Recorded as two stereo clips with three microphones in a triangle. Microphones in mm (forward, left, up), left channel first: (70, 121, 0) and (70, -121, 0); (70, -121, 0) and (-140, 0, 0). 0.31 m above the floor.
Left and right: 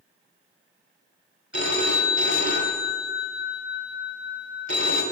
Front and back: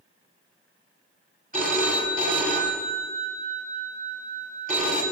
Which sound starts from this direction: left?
A phone ringing, at 1.5 s.